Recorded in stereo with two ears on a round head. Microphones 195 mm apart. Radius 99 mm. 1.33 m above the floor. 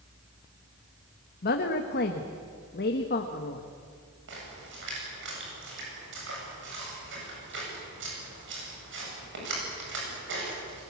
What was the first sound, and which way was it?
A woman speaking, 50° left (ahead or behind).